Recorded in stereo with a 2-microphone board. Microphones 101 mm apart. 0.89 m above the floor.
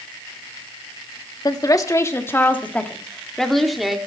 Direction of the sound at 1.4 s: 40° left (ahead or behind).